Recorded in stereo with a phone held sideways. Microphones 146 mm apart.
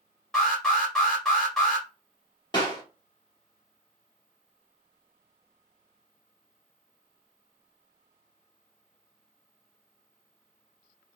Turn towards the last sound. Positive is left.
turn(degrees=35)  # may be behind; listen again after turning